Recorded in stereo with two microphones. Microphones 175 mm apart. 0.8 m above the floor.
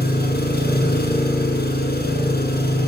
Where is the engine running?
60° left (ahead or behind), 7.5 m.